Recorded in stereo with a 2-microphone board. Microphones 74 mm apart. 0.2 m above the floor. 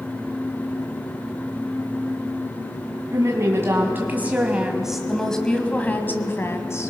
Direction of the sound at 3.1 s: 45° right (ahead or behind).